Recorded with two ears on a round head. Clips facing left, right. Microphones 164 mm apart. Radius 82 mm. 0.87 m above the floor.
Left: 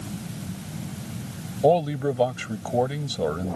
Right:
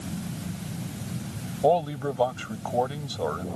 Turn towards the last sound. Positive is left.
turn(degrees=25)  # may be behind; listen again after turning